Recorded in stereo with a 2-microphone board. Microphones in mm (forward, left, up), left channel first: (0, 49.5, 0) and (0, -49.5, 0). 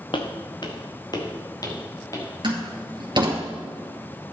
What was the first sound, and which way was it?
Footsteps, 55° left (ahead or behind).